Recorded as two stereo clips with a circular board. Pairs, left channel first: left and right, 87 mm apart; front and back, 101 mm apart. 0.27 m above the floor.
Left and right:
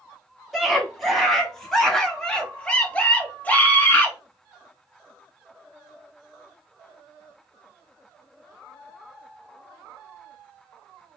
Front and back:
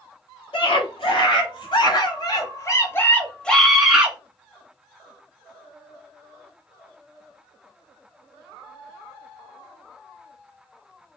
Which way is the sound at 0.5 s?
Straight ahead.